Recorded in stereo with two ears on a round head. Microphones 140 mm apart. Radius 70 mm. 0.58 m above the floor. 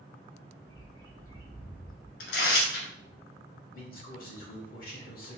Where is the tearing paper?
70° left (ahead or behind), 1.1 m.